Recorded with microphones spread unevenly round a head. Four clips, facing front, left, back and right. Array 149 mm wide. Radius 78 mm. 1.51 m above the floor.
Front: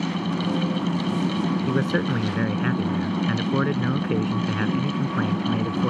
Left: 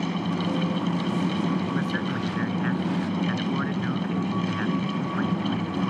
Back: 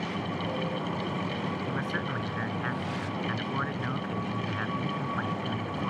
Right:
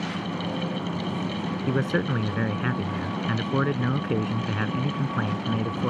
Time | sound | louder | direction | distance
0.0 | a fan | left 3 dB, front 7 dB | 25° left | ?
1.7 | a man speaking | right 2 dB, front 9 dB | 35° right | ?